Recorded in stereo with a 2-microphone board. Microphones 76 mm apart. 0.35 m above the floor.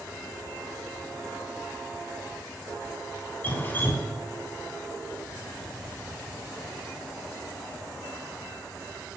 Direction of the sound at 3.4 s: 25° left (ahead or behind).